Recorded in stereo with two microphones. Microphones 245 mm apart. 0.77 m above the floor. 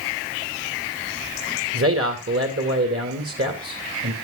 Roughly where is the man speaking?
Right.